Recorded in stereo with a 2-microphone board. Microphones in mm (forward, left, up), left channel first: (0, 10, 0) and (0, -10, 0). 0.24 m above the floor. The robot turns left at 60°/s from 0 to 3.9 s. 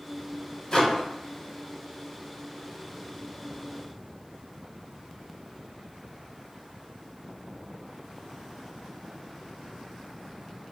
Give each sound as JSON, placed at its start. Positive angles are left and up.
{"t": 0.7, "sound": "a microwave", "side_deg": 35, "distance_m": 1.1}